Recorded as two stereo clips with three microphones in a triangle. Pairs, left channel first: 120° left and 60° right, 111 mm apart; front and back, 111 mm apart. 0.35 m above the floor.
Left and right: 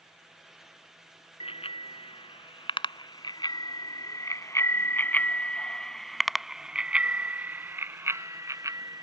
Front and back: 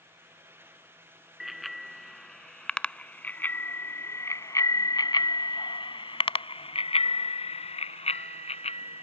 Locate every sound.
1.4 s a bicycle bell: 90° left; by 9.0 s 5° right